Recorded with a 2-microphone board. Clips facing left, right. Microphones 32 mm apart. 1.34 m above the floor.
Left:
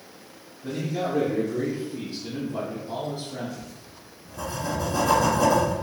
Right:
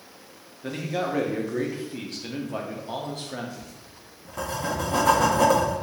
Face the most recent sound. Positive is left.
turn(degrees=-75)  # may be behind; listen again after turning